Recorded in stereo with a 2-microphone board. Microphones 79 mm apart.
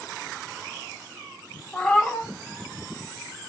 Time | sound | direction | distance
1.7 | a cat meowing | 10° left (ahead or behind) | 0.7 m